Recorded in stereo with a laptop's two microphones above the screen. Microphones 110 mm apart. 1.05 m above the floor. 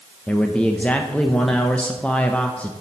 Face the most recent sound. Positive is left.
turn(degrees=10)  # may be behind; listen again after turning